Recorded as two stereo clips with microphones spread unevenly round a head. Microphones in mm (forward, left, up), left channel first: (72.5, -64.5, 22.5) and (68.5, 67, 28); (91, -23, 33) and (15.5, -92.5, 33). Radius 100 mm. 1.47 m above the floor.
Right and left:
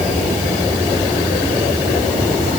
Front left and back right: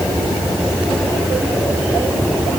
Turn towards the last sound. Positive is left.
No sound to turn to.